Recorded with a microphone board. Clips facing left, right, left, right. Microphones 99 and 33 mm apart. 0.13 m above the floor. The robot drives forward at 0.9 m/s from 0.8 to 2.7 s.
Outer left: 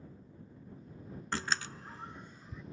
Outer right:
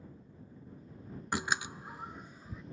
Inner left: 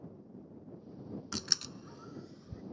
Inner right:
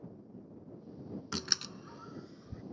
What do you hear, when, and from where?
1.3 s a door slam: 15° right (ahead or behind); by 2.6 s 10° right (ahead or behind)